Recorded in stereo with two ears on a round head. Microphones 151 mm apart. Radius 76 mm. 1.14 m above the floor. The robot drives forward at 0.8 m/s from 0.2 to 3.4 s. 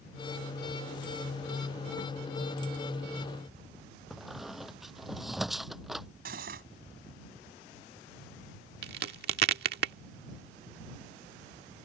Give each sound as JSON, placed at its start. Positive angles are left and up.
{"t": 4.1, "sound": "a squeak", "side_deg": 0}
{"t": 6.2, "sound": "cutlery clinking", "side_deg": -55}
{"t": 8.8, "sound": "a crack", "side_deg": -65}